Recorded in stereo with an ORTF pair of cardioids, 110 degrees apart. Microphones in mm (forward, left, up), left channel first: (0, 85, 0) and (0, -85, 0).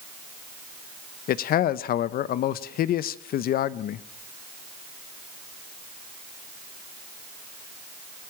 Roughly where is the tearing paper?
No tearing paper in this recording.